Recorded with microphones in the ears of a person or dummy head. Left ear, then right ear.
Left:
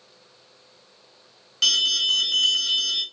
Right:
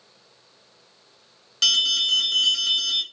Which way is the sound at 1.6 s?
5° right (ahead or behind).